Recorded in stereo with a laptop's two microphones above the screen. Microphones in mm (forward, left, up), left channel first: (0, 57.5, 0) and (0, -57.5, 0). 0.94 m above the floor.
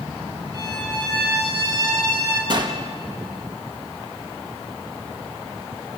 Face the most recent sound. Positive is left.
turn(degrees=-45)  # may be behind; listen again after turning